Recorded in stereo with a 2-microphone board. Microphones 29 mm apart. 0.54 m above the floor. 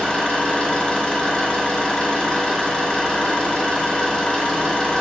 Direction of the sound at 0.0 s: 35° left (ahead or behind).